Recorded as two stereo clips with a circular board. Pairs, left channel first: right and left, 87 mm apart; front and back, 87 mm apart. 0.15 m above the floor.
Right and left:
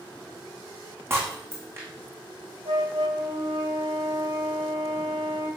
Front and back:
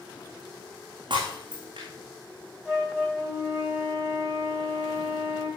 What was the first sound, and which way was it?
Breaking glass, 150° left.